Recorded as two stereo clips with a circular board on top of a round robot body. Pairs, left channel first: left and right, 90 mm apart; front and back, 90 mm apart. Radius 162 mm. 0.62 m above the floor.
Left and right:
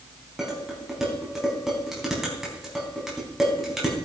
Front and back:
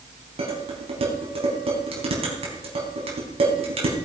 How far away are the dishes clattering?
About 4 m.